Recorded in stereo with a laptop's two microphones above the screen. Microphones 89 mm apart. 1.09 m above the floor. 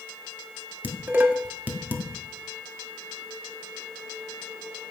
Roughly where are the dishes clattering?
Centre.